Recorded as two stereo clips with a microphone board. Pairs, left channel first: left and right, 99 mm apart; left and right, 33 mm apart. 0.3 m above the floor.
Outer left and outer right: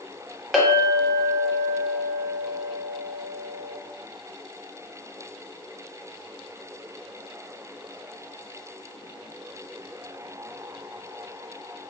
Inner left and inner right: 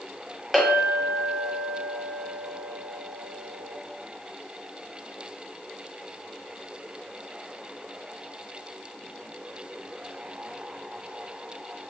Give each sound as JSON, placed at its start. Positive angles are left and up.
{"t": 0.5, "sound": "a clink", "side_deg": 0, "distance_m": 0.9}